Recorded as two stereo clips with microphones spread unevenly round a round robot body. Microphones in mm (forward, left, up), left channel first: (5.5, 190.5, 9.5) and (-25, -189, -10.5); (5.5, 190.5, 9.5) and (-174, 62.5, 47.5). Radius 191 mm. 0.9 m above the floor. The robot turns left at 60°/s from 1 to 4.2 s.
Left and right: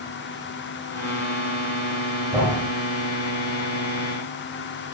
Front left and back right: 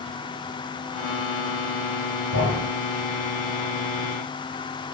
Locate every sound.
2.3 s a thud: 5° right, 2 m; by 2.7 s 25° right, 2 m